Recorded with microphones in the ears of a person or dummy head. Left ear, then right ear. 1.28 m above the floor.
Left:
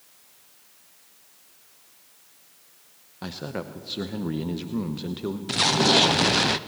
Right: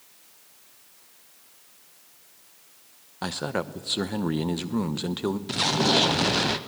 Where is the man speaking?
35° right (ahead or behind), 0.8 m.